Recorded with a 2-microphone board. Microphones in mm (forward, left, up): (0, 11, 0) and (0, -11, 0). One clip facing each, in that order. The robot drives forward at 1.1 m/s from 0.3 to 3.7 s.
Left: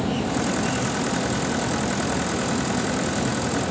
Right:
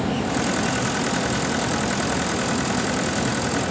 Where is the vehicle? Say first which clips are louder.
Right 1 dB; 15° right (ahead or behind); by 3.7 s 10° right (ahead or behind).